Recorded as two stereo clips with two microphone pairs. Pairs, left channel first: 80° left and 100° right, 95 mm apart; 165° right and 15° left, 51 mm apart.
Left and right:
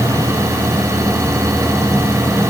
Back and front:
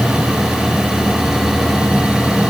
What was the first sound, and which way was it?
Only background noise.